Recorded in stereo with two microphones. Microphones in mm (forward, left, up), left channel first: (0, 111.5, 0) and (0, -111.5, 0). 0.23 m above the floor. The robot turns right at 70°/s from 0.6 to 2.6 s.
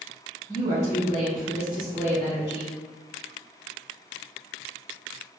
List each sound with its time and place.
0.5 s a woman speaking: 85° right, 1.9 m; by 2.8 s 55° left, 1.9 m